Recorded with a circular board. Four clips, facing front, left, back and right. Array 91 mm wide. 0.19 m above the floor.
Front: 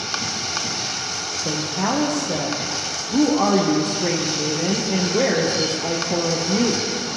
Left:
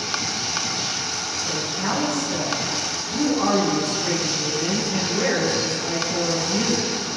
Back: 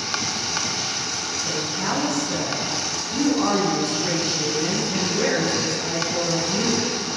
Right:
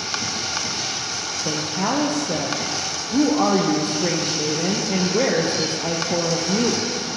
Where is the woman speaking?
50° right, 4.5 m.